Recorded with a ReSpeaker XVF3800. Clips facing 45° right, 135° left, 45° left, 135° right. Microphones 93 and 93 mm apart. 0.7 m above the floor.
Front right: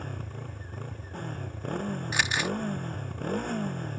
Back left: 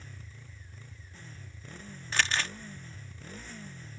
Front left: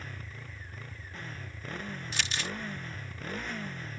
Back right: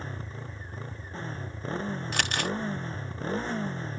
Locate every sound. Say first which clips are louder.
0.0 s a motorcycle: front right 13 dB, back right 6 dB; 75° right
2.1 s crumpling: even, back right 6 dB; 120° right